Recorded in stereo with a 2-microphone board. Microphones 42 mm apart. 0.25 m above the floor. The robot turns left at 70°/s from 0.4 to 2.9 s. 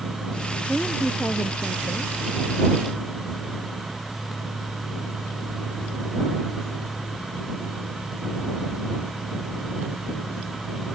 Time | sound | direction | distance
0.7 | a woman speaking | 175° right | ?